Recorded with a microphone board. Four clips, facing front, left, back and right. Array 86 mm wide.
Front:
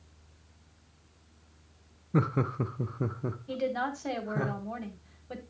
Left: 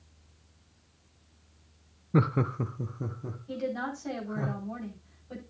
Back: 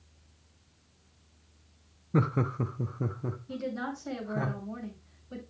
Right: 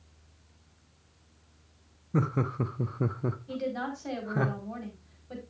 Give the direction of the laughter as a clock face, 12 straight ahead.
9 o'clock.